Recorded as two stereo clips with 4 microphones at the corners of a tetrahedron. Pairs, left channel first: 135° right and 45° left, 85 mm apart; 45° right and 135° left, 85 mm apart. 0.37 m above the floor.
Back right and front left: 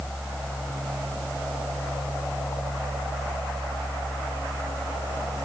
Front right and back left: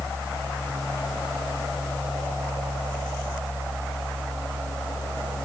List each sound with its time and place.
Only background noise.